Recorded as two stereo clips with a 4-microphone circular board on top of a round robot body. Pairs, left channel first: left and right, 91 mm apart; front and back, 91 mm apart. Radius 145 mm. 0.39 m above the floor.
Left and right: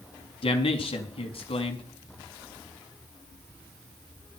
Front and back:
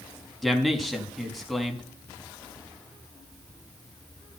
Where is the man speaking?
90° left, 4.5 m.